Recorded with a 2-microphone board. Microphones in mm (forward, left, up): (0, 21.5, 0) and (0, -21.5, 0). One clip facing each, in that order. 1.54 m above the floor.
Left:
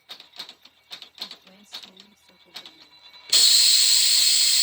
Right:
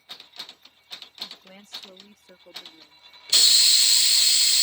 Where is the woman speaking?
60° right (ahead or behind); by 3.1 s 70° right (ahead or behind).